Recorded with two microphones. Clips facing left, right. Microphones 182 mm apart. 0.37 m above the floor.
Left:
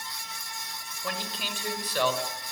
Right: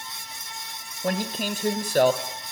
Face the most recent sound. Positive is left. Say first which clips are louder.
# right 10 dB
turn(degrees=-45)  # may be behind; listen again after turning